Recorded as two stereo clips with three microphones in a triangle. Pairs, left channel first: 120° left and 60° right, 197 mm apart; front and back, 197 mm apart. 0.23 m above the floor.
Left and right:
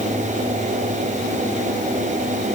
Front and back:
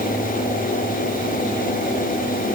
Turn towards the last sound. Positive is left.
No sound to turn to.